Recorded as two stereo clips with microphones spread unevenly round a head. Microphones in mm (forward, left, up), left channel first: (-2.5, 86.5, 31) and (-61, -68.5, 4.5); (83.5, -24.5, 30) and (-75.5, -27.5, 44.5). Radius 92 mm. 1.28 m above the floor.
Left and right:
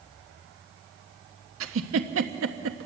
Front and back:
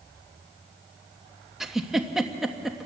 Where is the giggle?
90° right, 1.3 m.